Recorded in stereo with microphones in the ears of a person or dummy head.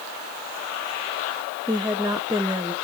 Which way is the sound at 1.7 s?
5° right (ahead or behind).